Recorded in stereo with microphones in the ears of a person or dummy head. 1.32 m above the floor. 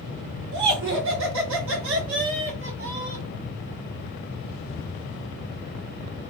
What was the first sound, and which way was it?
Laughter, 70° right (ahead or behind).